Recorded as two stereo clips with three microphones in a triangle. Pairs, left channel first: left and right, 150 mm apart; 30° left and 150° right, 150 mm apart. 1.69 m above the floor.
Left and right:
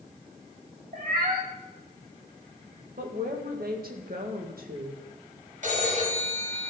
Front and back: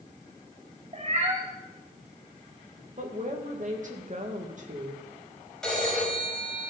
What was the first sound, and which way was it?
A cat meowing, 110° right.